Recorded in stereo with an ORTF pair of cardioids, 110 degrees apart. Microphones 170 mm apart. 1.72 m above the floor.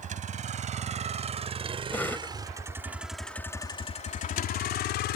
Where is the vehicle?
45° right; by 5.2 s 80° left.